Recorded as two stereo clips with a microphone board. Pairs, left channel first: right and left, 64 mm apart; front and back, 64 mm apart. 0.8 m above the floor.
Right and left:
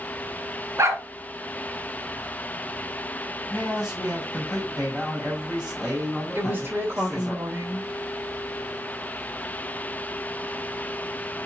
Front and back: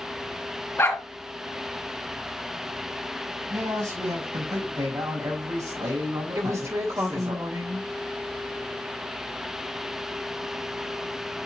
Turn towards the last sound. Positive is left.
turn(degrees=145)